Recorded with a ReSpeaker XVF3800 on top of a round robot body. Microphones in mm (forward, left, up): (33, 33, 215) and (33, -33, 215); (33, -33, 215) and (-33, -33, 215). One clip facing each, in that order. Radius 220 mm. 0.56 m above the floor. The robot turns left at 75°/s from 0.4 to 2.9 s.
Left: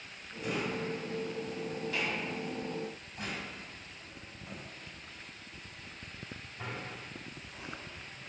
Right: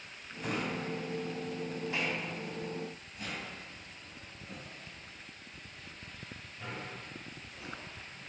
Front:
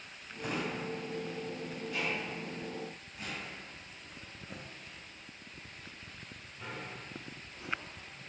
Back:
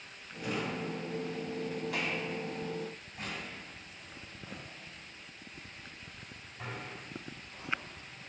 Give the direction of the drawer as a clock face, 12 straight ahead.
2 o'clock.